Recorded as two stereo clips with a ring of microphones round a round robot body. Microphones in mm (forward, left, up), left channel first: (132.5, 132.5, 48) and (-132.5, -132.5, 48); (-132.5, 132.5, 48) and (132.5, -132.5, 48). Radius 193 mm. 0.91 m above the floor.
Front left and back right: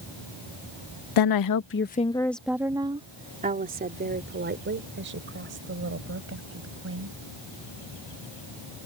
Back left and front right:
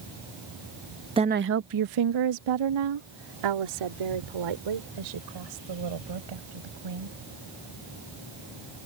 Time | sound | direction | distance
1.2 | a woman speaking | 30° left | ?